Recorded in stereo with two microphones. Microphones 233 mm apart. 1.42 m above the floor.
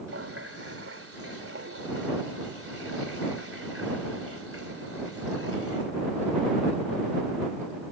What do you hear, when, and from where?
0.1 s a running tap: 75° right (ahead or behind)